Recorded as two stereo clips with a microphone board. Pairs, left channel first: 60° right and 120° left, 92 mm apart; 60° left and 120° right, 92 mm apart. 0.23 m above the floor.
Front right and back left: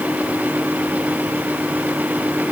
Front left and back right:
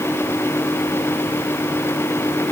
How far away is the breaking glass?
No breaking glass in this recording.